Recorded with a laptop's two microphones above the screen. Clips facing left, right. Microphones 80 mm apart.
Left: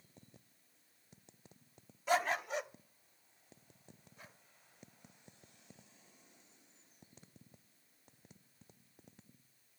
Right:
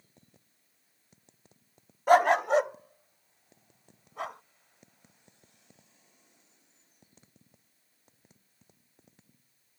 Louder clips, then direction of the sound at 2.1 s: Right 13 dB; 50° right (ahead or behind).